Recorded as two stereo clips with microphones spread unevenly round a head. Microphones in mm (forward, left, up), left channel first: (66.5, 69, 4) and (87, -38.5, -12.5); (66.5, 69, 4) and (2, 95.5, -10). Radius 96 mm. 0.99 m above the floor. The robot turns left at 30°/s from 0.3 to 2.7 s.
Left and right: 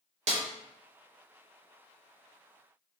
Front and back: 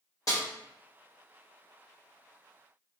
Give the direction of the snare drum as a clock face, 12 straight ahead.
3 o'clock.